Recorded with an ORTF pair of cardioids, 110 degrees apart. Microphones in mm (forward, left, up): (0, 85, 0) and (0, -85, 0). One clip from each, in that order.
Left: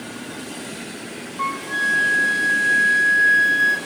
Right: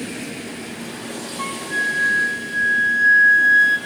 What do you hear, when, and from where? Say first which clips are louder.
1.4 s a flute: left 1 dB; 10° left, 0.6 m